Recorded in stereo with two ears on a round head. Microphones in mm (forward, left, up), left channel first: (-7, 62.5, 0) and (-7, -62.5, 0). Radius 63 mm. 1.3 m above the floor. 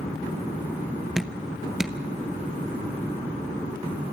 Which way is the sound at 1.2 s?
5° right (ahead or behind).